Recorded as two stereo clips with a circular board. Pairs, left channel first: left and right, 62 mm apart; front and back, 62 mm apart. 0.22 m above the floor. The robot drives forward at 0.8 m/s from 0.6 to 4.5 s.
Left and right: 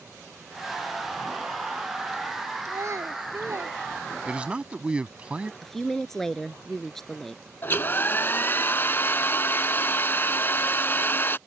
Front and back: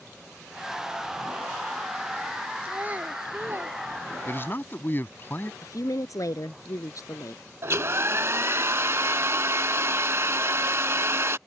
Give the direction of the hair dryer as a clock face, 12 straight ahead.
7 o'clock.